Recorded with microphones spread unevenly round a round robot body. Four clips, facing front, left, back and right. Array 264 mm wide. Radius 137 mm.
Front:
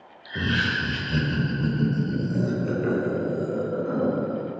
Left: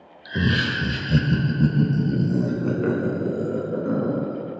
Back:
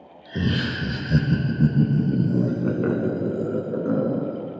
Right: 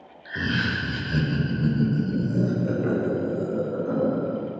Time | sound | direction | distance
0.2 | laughter | 115° left | 1.2 m